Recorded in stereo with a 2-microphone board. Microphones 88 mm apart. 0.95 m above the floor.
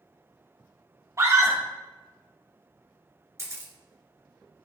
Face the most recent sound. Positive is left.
turn(degrees=-40)  # may be behind; listen again after turning